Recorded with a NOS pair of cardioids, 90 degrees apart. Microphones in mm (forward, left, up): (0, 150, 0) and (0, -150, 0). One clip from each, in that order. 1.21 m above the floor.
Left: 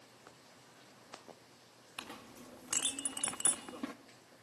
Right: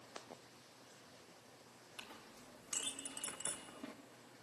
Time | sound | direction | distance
2.0 | a clink | 60° left | 1.4 m